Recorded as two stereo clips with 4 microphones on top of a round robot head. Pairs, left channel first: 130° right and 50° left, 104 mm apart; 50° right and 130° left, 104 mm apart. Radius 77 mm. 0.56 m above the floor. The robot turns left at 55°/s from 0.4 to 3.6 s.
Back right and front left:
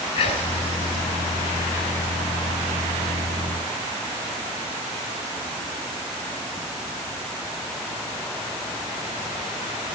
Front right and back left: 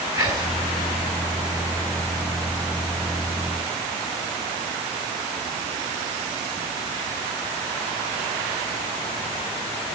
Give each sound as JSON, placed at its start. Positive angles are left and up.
{"t": 0.1, "sound": "whispering", "azimuth_deg": -170, "distance_m": 4.5}